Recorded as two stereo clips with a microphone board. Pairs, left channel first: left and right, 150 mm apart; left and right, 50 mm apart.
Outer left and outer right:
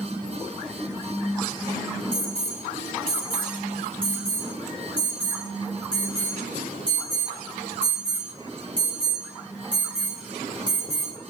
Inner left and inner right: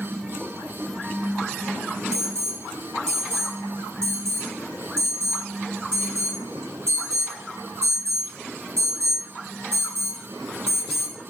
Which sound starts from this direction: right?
An alarm, at 2.1 s.